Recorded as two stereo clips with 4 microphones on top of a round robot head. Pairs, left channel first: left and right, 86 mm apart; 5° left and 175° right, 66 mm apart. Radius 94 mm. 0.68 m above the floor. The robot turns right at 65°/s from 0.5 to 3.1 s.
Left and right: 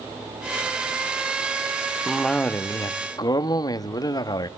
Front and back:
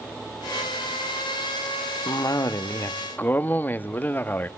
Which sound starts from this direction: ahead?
A cough, at 2.1 s.